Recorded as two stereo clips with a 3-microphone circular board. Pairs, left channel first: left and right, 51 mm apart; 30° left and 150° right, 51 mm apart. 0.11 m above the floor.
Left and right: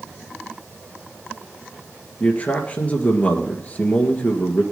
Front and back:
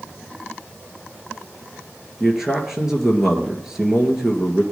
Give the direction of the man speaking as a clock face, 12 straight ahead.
8 o'clock.